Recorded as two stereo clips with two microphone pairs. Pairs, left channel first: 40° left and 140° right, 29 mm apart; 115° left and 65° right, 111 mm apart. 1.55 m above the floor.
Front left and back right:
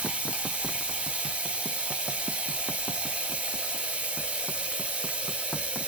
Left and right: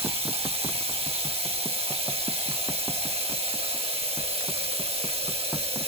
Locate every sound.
0.0 s running water: 95° right, 2 m